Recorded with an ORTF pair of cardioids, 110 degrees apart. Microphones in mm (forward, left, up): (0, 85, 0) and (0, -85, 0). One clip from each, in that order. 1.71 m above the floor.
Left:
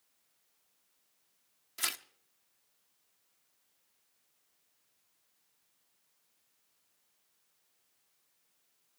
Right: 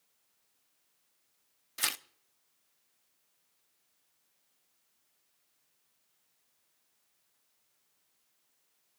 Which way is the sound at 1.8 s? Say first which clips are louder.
Right 2 dB; 15° right.